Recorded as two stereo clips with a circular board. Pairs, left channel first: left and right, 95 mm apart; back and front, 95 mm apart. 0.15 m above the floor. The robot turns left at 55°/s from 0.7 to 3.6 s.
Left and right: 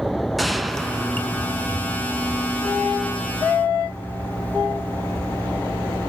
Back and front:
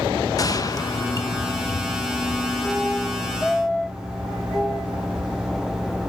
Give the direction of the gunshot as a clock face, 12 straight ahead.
6 o'clock.